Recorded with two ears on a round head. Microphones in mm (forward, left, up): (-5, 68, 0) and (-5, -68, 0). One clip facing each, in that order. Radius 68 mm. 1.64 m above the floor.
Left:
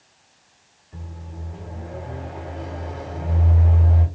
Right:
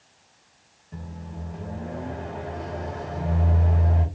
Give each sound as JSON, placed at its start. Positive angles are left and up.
{"t": 0.9, "sound": "a microwave", "side_deg": -55, "distance_m": 1.3}